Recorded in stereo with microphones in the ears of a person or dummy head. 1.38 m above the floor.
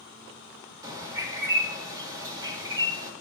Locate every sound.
0.8 s a bird: 20° right (ahead or behind), 1.4 m